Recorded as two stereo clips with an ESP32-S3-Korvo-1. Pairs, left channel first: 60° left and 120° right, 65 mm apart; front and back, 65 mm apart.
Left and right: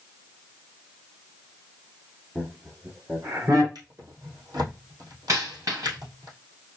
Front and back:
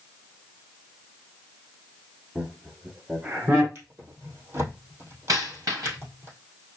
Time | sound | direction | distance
2.4 | laughter | 95° right | 1.6 m
3.8 | a drawer | 130° right | 2.5 m
5.3 | a dropped coin | 145° right | 2.5 m